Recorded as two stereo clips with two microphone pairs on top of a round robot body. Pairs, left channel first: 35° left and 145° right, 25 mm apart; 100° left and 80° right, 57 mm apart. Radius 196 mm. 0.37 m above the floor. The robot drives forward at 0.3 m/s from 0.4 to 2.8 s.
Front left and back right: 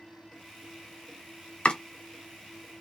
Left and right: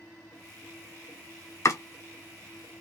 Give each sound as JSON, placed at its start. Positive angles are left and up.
{"t": 1.6, "sound": "chopping", "azimuth_deg": 75, "distance_m": 1.0}